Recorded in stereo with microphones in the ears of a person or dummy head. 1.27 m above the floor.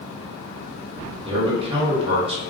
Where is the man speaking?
35° right (ahead or behind), 1.0 m.